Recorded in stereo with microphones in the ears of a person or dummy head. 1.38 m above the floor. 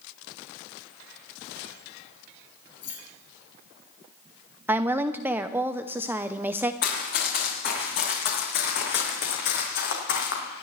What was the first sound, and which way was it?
Keys jangling, 75° left (ahead or behind).